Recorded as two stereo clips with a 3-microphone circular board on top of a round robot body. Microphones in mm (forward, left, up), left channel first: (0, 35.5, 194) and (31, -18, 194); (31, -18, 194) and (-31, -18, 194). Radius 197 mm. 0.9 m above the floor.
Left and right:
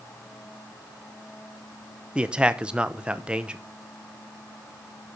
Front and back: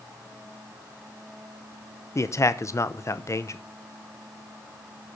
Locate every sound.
2.1 s a man speaking: 10° left, 1.1 m